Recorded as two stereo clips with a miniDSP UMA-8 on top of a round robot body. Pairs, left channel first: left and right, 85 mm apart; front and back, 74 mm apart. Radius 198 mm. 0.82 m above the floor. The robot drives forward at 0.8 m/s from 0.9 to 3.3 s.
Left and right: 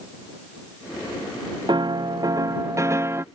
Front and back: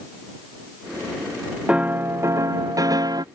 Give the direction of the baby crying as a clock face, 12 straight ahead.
No baby crying in this recording.